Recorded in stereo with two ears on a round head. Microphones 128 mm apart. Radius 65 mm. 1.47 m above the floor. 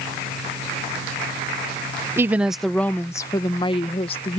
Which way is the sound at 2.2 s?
20° right (ahead or behind).